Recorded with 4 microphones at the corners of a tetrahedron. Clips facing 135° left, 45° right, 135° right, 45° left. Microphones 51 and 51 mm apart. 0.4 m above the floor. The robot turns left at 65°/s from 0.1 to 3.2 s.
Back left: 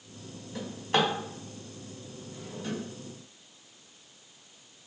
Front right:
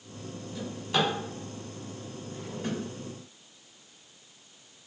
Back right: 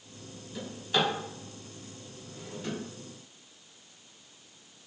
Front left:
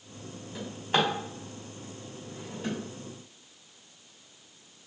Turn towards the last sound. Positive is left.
turn(degrees=-55)